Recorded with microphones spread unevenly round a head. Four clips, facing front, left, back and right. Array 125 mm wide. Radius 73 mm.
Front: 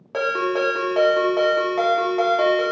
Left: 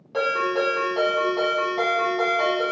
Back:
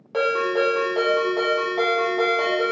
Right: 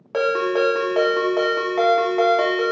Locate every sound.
0.1 s a ringtone: 85° right, 0.9 m